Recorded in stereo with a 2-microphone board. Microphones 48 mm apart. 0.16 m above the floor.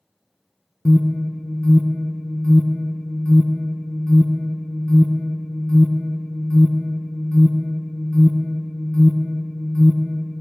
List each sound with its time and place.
0.8 s an alarm: 25° left (ahead or behind), 0.8 m